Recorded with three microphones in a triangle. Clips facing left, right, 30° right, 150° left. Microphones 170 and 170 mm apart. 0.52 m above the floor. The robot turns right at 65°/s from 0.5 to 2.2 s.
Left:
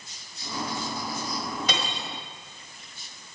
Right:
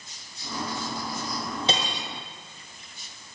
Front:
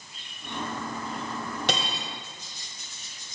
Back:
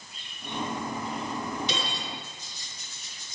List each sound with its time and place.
1.7 s cutlery clinking: 30° right, 1.7 m; by 2.1 s 5° right, 1.7 m